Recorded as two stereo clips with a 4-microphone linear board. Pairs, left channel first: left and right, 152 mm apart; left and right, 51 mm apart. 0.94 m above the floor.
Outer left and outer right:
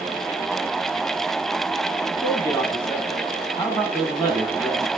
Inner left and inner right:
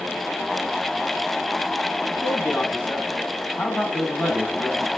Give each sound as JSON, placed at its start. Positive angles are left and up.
{"t": 2.1, "sound": "a man speaking", "side_deg": 30, "distance_m": 6.0}